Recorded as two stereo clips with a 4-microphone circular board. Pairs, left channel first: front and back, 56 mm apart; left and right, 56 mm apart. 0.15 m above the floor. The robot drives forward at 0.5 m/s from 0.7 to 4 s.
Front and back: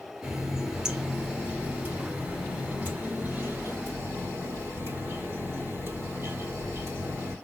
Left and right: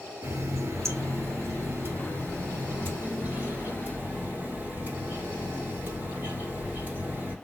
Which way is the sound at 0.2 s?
105° right.